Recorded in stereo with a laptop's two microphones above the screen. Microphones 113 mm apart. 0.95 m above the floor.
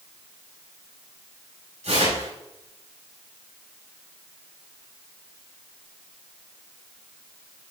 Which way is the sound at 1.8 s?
85° right.